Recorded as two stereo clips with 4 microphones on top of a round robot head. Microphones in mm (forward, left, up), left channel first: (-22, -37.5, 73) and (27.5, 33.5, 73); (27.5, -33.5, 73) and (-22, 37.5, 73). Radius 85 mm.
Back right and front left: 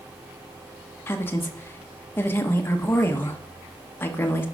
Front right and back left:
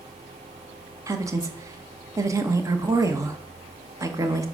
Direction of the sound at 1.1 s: 175° left.